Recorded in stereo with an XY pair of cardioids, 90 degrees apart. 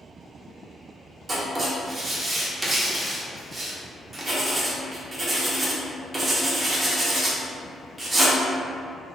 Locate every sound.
1.3 s writing: 30° right, 1.3 m